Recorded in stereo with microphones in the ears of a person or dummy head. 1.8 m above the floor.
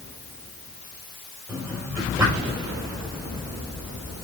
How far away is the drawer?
About 4.5 m.